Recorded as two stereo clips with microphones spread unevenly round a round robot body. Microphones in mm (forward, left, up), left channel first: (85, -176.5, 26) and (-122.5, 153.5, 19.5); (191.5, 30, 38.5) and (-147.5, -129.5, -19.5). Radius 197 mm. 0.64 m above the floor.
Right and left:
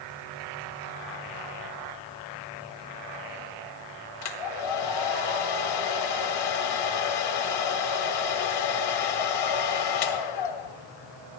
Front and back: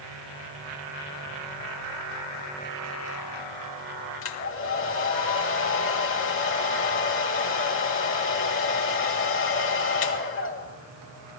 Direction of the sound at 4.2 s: 30° right.